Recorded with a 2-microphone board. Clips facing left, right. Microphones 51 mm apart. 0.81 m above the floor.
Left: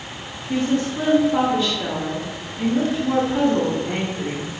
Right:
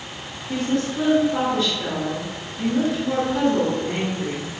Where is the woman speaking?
10° left (ahead or behind), 1.0 m.